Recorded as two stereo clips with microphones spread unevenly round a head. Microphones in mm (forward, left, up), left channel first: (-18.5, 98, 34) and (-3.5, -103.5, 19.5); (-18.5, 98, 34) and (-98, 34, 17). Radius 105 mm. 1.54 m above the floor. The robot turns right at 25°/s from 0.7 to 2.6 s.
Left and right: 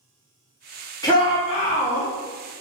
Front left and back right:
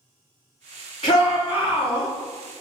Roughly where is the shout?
Ahead left.